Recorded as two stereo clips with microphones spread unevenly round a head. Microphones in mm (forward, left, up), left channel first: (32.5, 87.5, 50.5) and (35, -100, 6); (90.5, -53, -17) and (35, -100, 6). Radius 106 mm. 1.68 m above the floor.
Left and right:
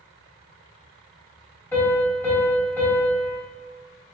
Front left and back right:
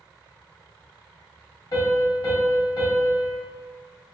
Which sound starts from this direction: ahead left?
A piano, at 1.7 s.